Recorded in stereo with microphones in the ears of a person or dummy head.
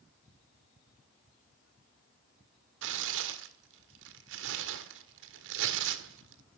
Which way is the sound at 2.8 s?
75° right (ahead or behind).